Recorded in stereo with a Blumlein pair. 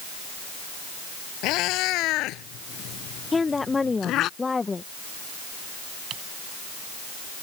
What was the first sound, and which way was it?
A cat meowing, 40° left.